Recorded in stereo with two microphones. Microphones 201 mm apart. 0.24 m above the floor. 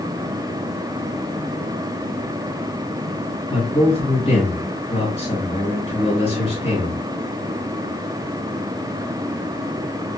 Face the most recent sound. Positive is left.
turn(degrees=30)  # may be behind; listen again after turning